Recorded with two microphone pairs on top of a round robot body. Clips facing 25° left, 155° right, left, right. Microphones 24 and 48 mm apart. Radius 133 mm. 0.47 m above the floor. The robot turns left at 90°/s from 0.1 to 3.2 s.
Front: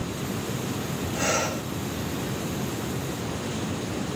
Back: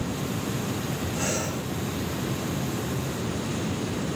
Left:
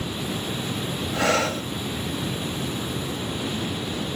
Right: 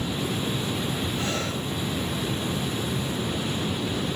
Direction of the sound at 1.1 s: 105° left.